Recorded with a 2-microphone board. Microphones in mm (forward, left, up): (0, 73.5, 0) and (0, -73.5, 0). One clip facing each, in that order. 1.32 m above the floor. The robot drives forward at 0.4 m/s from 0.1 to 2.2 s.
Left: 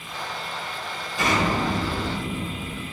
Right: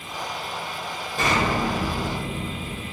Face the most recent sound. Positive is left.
turn(degrees=-60)  # may be behind; listen again after turning